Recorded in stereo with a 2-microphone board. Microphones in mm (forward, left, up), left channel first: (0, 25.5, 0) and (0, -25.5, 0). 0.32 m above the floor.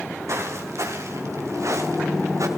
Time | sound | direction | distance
0.3 | footsteps | 65° right (ahead or behind) | 5.5 m